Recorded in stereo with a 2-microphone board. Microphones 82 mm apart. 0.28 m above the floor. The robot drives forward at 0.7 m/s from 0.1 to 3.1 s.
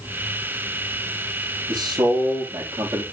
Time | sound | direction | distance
1.7 | a man speaking | 55° right (ahead or behind) | 7 m